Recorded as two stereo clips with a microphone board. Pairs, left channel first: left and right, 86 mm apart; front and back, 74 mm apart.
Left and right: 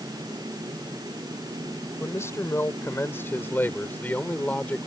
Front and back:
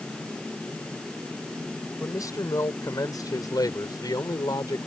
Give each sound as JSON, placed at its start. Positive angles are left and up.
{"t": 2.0, "sound": "a man speaking", "azimuth_deg": 35}